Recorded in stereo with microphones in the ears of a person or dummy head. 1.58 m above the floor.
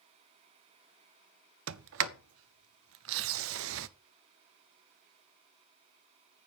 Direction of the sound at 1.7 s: 75° right (ahead or behind).